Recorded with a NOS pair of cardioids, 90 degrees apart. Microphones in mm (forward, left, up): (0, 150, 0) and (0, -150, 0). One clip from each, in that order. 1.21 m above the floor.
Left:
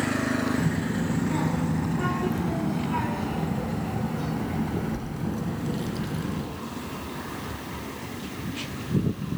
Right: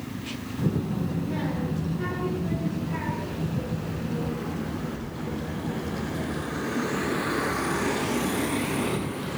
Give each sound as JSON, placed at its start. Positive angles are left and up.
{"t": 0.6, "sound": "a child speaking", "azimuth_deg": 40, "distance_m": 6.0}